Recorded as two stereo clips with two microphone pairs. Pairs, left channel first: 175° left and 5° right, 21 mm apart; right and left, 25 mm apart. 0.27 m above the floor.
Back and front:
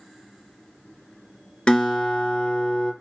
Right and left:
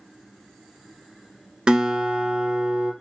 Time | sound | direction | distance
1.7 | a guitar | 145° left | 1.0 m